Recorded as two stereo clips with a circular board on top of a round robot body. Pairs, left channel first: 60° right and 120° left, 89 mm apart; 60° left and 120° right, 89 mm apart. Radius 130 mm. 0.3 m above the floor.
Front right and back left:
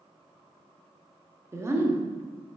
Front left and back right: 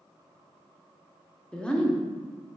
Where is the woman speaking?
130° left, 0.9 m.